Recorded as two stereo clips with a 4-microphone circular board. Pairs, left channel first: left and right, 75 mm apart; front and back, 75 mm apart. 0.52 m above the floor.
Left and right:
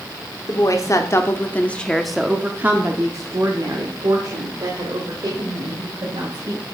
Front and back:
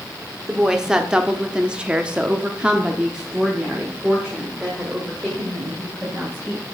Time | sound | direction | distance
0.5 | a woman speaking | 100° left | 1.0 m